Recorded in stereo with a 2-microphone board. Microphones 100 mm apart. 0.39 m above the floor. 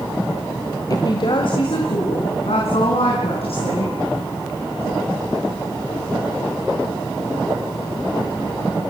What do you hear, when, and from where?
0.9 s a woman speaking: 40° left (ahead or behind), 1.4 m; by 3.9 s 80° left, 6 m